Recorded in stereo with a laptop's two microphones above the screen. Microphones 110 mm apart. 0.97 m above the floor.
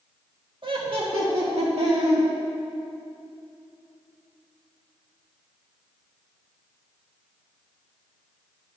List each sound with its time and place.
0.6 s laughter: 50° right (ahead or behind), 1.4 m; by 2.2 s 75° right (ahead or behind), 2 m